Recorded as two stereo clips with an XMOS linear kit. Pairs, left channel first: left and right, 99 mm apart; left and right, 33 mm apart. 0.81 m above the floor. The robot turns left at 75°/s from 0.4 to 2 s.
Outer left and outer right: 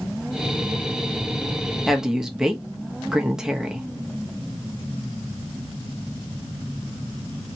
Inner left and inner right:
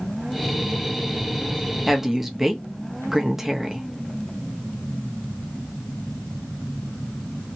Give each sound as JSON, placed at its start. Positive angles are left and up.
{"t": 1.9, "sound": "a woman speaking", "side_deg": 0, "distance_m": 0.9}